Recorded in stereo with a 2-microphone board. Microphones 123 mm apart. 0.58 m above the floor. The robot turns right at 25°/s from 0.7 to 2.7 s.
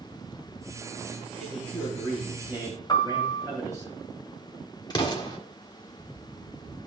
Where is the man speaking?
170° left, 2.5 m; by 3.9 s 155° right, 2.5 m.